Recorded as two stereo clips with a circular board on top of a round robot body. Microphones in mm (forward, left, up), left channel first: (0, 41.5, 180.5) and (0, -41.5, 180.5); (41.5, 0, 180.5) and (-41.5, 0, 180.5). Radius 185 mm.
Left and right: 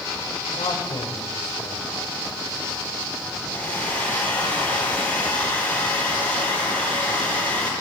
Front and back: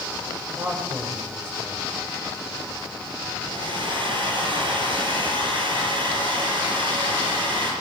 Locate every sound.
0.6 s a man speaking: 115° left, 5.5 m
3.4 s a hair dryer: 165° left, 6.5 m